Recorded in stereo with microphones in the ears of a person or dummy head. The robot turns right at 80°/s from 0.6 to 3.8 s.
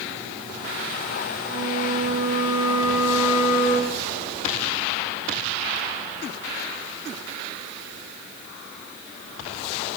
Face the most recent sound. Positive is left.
turn(degrees=15)